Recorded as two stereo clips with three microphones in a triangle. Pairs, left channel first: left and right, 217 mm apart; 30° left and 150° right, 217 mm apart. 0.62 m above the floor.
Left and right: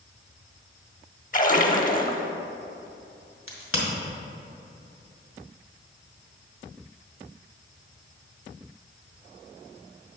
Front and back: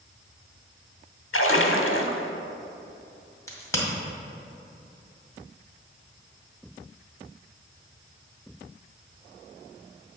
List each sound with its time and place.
1.3 s a splash: 40° left, 0.7 m
3.5 s a crack: 105° left, 1.9 m